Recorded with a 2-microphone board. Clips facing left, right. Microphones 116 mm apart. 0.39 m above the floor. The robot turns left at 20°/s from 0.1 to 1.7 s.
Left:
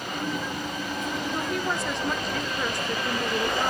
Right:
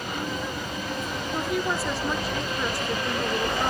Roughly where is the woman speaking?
Centre.